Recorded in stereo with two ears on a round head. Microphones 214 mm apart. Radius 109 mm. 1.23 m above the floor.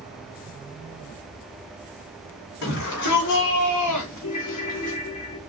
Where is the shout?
70° left (ahead or behind), 4 m.